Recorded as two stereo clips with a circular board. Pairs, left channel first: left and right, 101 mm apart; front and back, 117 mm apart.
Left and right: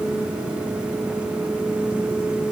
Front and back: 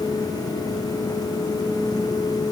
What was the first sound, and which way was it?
Only background noise.